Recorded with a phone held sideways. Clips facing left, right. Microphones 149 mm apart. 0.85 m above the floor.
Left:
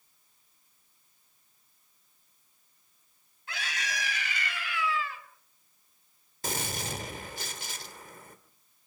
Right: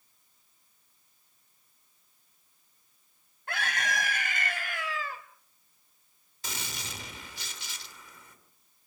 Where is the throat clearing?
No throat clearing in this recording.